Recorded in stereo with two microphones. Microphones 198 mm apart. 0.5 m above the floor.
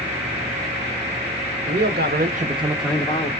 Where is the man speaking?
60° right (ahead or behind), 1.7 m; by 3.3 s 35° left (ahead or behind), 1.0 m.